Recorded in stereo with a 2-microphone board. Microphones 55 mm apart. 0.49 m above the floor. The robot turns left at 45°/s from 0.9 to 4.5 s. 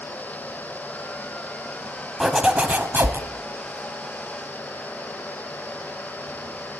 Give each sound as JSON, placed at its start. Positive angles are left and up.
{"t": 2.2, "sound": "a zipper", "azimuth_deg": -10, "distance_m": 1.1}